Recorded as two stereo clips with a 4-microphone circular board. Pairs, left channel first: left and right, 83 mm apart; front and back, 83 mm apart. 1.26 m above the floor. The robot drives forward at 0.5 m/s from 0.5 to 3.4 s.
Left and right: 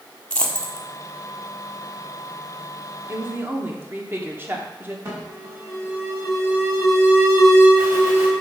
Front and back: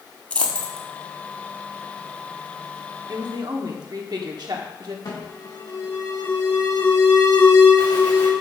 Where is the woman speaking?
150° right, 1.1 m; by 5.0 s 155° right, 1.2 m.